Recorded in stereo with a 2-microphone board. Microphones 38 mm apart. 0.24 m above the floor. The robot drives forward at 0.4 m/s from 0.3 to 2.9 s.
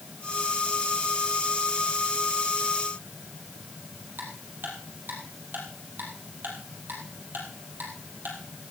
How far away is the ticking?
About 4 m.